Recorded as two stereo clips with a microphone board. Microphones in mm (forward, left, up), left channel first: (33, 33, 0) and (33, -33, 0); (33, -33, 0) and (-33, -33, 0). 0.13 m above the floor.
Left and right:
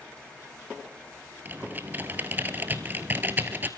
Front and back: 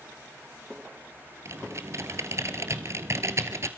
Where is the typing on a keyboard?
145° right, 1.5 m.